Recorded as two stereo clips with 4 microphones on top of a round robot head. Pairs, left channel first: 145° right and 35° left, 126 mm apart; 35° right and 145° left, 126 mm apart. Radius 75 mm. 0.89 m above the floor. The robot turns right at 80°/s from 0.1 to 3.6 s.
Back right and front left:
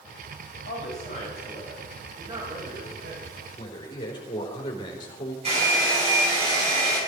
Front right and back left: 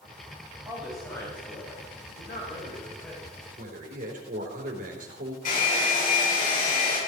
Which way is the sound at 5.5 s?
10° right.